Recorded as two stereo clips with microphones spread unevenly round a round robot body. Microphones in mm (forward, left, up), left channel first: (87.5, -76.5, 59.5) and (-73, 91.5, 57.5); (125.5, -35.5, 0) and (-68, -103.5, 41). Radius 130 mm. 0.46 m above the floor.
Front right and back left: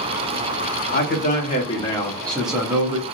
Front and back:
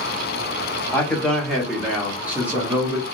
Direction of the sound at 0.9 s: 45° right.